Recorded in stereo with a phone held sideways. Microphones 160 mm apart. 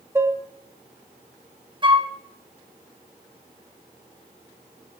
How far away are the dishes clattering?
About 0.6 m.